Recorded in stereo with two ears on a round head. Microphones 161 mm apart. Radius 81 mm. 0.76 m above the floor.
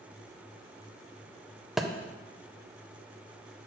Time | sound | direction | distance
1.8 | a thud | centre (ahead or behind) | 0.5 m